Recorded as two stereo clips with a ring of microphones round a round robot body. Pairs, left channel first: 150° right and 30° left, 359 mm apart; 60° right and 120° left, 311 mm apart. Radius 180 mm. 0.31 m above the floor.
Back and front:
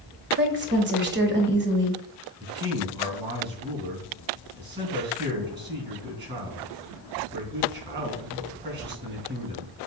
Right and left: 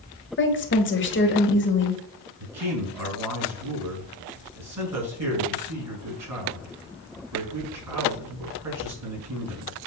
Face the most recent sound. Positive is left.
turn(degrees=90)